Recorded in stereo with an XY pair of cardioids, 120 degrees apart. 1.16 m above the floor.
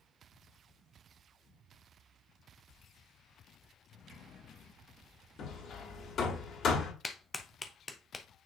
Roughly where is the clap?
Ahead.